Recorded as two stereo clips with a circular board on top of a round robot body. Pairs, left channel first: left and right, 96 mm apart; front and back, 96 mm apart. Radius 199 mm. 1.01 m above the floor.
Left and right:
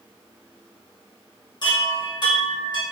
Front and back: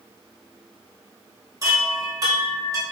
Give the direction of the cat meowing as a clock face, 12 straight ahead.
I don't hear a cat meowing.